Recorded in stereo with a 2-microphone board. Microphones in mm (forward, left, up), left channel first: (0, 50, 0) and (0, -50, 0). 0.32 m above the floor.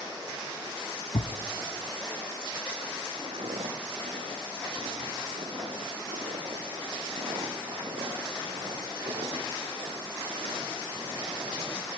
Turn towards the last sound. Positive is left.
turn(degrees=-65)  # may be behind; listen again after turning